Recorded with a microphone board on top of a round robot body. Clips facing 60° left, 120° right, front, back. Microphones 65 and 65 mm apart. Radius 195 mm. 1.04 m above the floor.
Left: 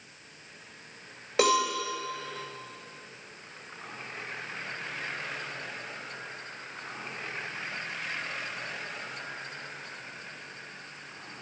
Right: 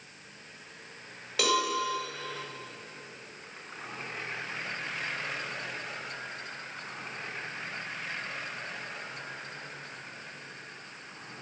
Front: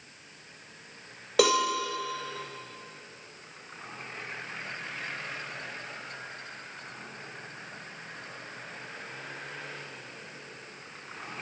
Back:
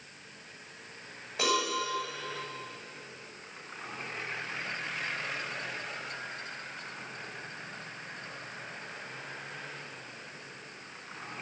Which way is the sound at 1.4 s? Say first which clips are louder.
Left 4 dB, front 6 dB; 5° right.